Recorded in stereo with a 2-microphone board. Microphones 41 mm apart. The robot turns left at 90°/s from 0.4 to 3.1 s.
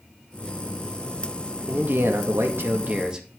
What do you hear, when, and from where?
1.7 s a man speaking: 30° right, 1.9 m; by 3.3 s 160° right, 1.9 m